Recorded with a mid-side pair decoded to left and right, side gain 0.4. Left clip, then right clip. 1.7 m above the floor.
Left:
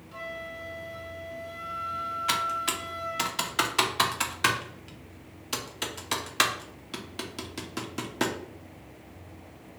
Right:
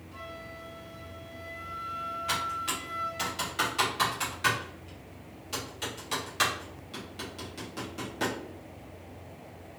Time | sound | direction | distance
0.1 | a flute | 55° left | 1.2 m
2.3 | typing on a keyboard | 65° left | 0.6 m